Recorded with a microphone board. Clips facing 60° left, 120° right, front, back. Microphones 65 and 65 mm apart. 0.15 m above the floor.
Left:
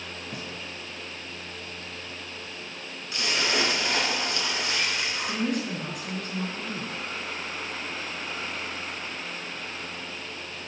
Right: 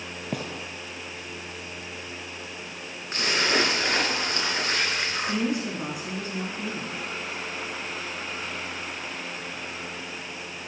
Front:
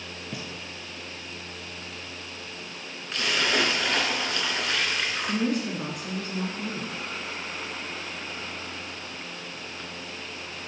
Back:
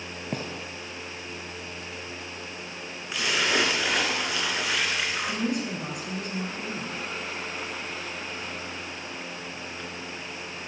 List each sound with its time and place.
0.3 s a gunshot: 140° right, 0.5 m
3.1 s a splash: 100° right, 1.1 m
5.3 s a woman speaking: 60° right, 4.5 m